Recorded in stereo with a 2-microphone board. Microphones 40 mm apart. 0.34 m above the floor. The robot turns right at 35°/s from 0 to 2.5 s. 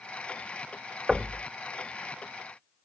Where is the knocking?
15° right (ahead or behind), 0.5 m.